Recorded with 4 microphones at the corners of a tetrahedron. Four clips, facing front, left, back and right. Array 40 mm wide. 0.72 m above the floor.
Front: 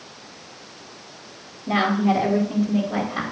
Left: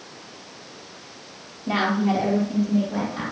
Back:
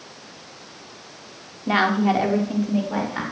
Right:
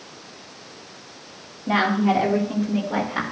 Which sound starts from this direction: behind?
A woman speaking, at 1.7 s.